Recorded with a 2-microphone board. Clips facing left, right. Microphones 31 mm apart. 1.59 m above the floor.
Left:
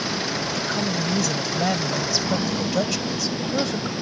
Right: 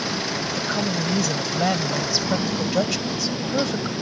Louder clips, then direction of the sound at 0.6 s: Right 2 dB; 10° right (ahead or behind).